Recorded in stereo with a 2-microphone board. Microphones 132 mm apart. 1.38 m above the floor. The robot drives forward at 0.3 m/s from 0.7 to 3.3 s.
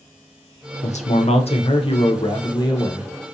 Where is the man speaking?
65° left (ahead or behind), 0.6 m; by 3.1 s 30° left (ahead or behind), 1.1 m.